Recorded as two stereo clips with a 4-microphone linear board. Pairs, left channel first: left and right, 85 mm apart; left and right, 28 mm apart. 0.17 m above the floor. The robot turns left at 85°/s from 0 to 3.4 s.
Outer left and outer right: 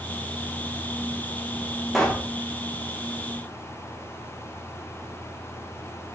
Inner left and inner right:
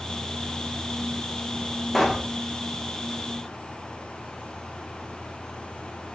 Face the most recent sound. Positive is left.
turn(degrees=55)